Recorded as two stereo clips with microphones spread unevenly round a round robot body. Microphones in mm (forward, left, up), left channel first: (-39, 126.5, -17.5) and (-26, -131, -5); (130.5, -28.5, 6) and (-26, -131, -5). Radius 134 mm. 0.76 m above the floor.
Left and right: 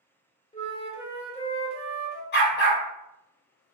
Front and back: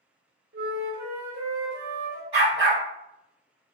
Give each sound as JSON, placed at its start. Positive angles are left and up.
{"t": 0.5, "sound": "a flute", "azimuth_deg": 160, "distance_m": 0.9}
{"t": 2.3, "sound": "a dog barking", "azimuth_deg": 140, "distance_m": 2.0}